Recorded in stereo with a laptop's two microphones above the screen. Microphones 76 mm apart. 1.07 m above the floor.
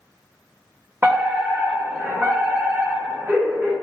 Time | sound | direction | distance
1.0 | a fire alarm | 35° right (ahead or behind) | 1.3 m